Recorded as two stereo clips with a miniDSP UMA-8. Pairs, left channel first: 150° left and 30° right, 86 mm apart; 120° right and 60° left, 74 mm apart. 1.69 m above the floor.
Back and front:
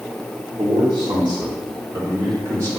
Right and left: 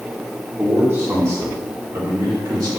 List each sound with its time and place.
0.6 s a man speaking: straight ahead, 2.5 m; by 2.7 s 25° left, 4.5 m